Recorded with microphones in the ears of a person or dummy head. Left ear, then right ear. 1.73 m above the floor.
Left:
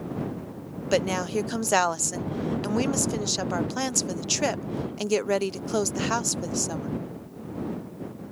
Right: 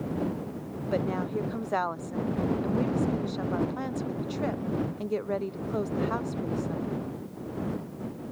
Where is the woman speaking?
85° left.